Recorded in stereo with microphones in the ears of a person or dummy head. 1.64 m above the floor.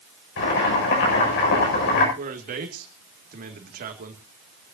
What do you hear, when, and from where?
0.4 s boiling: 60° left (ahead or behind), 7 m
2.2 s a man speaking: 40° right (ahead or behind), 2 m